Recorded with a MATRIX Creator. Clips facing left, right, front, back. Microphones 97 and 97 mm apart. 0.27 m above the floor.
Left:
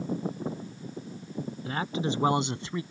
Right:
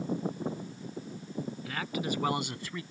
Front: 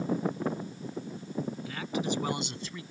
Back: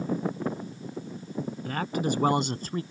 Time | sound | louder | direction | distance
1.6 | a man speaking | left 5 dB, back 7 dB | 145° left | ?